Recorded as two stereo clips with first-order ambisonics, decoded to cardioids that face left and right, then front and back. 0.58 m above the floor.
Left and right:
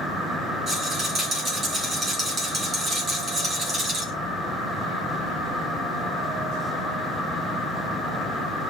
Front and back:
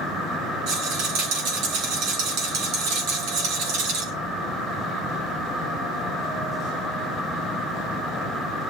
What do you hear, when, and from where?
0.7 s a rattle: 165° right, 4 m